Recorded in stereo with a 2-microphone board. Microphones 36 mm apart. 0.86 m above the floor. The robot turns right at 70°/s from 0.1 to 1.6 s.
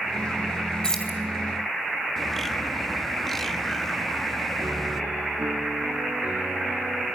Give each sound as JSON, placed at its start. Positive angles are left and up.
{"t": 0.8, "sound": "keys jangling", "side_deg": 20, "distance_m": 3.0}
{"t": 2.2, "sound": "a bird", "side_deg": 5, "distance_m": 1.0}
{"t": 4.6, "sound": "a piano", "side_deg": -85, "distance_m": 6.5}